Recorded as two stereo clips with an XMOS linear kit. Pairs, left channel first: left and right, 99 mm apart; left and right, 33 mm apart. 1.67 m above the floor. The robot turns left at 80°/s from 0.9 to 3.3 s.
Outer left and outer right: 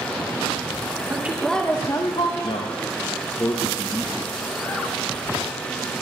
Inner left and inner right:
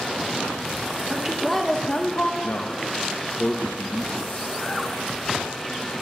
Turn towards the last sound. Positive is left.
turn(degrees=50)